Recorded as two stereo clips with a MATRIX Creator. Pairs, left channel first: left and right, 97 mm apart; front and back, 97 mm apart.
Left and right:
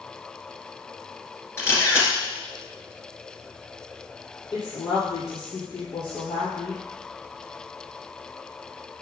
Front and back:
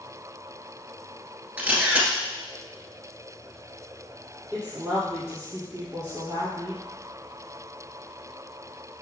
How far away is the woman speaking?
About 2 m.